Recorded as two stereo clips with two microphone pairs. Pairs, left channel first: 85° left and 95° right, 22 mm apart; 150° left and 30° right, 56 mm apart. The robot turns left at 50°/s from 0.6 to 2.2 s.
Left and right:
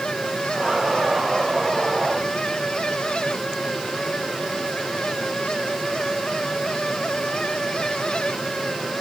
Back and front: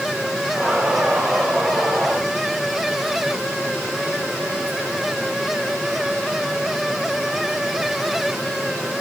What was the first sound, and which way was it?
Only background noise.